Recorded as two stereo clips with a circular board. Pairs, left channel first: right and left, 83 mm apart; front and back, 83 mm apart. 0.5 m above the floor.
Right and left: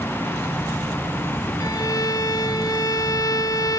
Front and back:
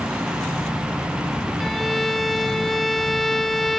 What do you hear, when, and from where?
1.6 s a violin: 85° right, 1.5 m